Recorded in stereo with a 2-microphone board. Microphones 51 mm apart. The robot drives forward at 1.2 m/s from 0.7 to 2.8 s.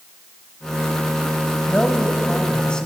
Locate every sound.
1.7 s a man speaking: 25° left (ahead or behind), 1.9 m; by 2.9 s 15° left (ahead or behind), 3 m